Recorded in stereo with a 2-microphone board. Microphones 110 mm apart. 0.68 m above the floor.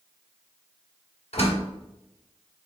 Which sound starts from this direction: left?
A door slam, at 1.3 s.